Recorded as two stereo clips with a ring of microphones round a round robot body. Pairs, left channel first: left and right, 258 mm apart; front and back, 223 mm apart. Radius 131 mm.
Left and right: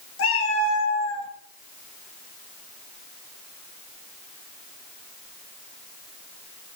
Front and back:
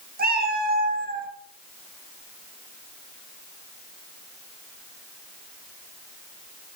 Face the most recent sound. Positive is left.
turn(degrees=130)